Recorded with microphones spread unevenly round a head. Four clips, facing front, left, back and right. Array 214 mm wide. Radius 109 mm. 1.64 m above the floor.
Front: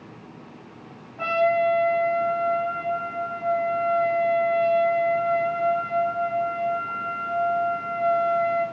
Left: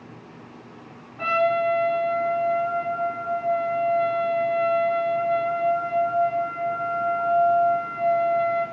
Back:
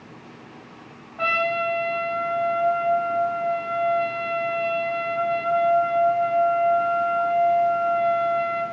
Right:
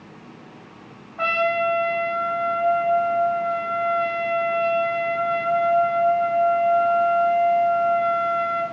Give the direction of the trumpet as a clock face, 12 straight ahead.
4 o'clock.